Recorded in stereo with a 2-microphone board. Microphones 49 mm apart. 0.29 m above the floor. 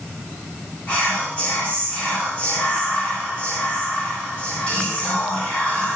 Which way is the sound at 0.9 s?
25° left (ahead or behind).